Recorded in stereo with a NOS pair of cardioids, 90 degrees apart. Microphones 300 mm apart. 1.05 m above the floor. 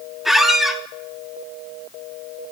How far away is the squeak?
About 0.6 m.